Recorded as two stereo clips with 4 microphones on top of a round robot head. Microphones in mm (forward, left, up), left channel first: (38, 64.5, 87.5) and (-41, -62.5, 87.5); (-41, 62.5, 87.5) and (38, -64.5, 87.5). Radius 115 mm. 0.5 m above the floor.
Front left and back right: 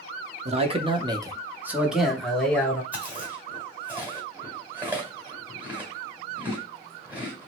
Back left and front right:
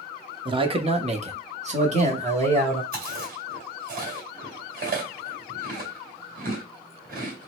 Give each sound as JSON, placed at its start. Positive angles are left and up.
{"t": 0.5, "sound": "a man speaking", "azimuth_deg": -105, "distance_m": 0.9}
{"t": 2.9, "sound": "chewing", "azimuth_deg": -40, "distance_m": 1.8}